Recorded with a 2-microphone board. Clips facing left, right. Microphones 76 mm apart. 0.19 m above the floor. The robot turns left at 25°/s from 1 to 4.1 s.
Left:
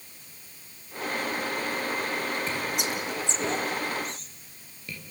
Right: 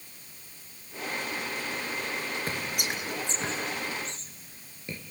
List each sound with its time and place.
2.5 s whispering: 60° right (ahead or behind), 3.5 m; by 5.0 s 30° right (ahead or behind), 3.5 m